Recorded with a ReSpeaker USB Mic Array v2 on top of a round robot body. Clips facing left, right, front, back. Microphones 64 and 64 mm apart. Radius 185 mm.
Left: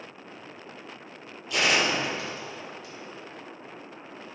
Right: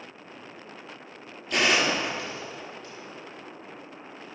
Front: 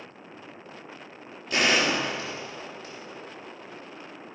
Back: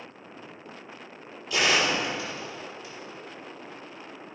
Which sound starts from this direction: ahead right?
A gunshot, at 1.5 s.